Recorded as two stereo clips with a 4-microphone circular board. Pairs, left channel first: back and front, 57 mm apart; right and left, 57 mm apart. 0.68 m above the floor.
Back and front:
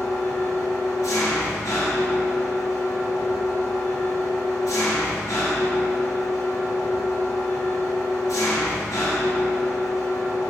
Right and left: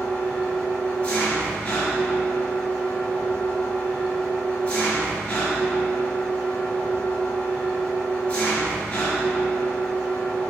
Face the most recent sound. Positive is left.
turn(degrees=-160)